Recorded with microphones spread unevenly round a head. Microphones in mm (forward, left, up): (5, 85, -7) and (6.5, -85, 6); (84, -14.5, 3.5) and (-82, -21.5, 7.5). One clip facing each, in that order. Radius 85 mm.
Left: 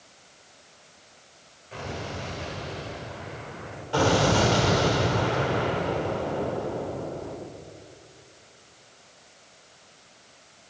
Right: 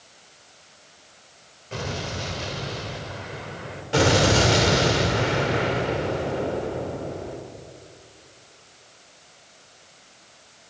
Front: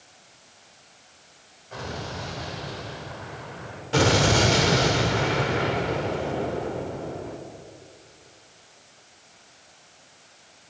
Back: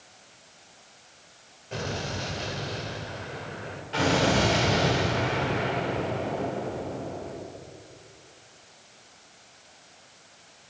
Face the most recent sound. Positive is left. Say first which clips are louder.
# right 2 dB, front 3 dB
turn(degrees=-30)